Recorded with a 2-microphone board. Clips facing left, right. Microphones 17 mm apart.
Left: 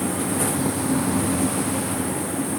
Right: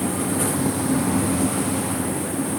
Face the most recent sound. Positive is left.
No sound to turn to.